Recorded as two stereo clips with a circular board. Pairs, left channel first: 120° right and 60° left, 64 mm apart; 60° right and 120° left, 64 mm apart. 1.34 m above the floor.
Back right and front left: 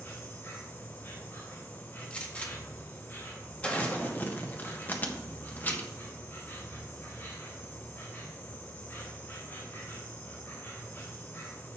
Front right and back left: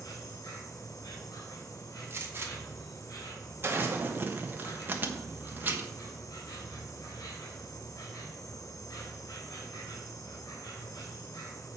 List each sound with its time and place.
0.0 s an insect: 65° right, 3 m
2.1 s a gunshot: 170° left, 1.7 m
3.8 s crumpling: straight behind, 1.2 m